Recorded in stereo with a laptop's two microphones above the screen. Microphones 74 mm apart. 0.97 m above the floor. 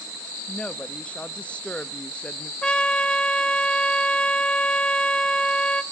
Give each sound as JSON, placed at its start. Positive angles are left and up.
{"t": 0.5, "sound": "a woman speaking", "side_deg": 15, "distance_m": 1.0}
{"t": 2.6, "sound": "a trumpet", "side_deg": 15, "distance_m": 0.8}